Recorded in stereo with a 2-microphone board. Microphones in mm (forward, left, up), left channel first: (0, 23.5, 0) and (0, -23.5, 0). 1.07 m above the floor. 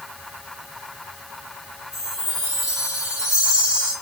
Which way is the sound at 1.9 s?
20° right (ahead or behind).